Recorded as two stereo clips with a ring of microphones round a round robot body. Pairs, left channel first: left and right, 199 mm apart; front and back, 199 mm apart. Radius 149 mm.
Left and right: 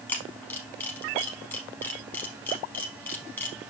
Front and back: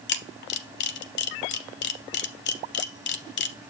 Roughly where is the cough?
No cough in this recording.